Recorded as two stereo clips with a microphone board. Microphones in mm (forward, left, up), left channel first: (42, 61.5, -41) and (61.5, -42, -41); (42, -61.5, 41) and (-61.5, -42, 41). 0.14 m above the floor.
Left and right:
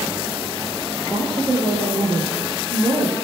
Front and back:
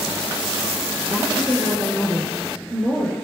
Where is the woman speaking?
125° right, 4.5 m.